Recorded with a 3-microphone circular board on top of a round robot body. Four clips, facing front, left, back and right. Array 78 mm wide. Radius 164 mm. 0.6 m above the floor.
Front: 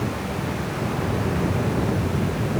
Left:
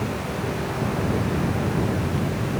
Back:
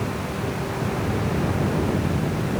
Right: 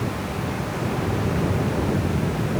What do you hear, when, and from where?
Only background noise.